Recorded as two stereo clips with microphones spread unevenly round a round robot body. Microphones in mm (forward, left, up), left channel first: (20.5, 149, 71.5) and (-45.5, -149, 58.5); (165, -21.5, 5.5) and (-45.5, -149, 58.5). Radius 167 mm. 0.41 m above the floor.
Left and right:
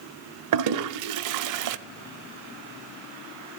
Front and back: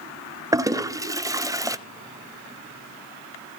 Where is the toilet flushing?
70° right, 0.6 m.